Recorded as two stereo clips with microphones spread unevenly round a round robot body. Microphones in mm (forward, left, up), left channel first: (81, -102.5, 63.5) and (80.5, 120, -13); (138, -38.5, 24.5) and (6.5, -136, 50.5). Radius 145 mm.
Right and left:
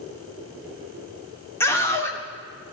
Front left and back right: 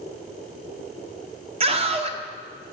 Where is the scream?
175° left, 0.8 m.